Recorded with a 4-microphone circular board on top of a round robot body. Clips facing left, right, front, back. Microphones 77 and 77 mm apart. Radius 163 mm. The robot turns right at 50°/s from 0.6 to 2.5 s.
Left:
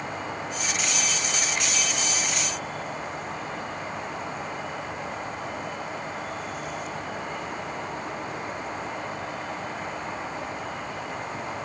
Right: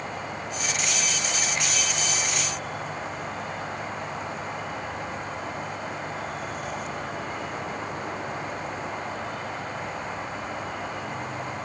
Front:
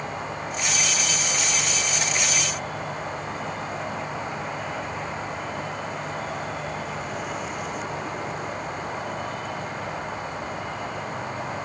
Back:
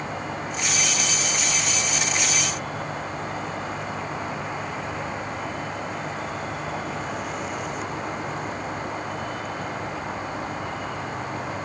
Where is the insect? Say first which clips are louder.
Left 1 dB, back 1 dB; 130° left, 8 m; by 11.6 s 135° right, 8 m.